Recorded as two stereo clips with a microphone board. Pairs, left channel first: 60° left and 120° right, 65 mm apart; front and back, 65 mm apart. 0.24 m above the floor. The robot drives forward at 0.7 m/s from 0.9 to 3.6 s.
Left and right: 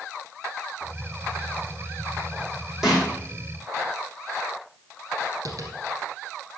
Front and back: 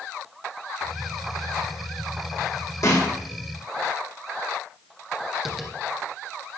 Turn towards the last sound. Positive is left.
turn(degrees=-90)